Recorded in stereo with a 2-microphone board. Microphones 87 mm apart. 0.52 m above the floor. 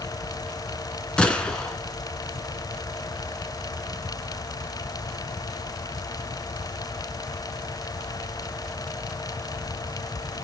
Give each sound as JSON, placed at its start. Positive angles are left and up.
{"t": 1.2, "sound": "a gunshot", "side_deg": 10, "distance_m": 2.5}